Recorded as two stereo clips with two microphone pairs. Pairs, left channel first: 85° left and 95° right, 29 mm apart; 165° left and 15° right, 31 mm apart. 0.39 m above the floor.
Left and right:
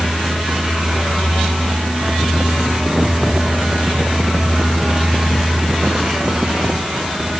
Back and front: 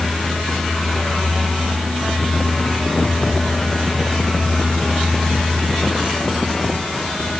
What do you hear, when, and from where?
Only background noise.